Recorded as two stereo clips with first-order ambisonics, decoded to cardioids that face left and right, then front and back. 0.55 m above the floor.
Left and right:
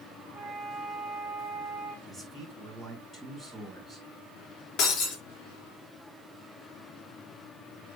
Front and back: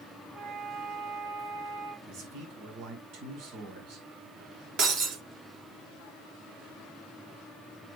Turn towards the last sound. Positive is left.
turn(degrees=140)